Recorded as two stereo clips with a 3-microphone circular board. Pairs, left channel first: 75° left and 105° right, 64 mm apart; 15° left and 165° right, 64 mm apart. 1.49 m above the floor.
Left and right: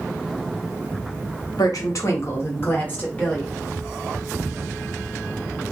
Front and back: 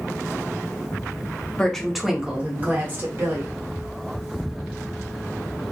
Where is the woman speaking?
90° left, 0.7 m; by 3.5 s 150° left, 1.3 m.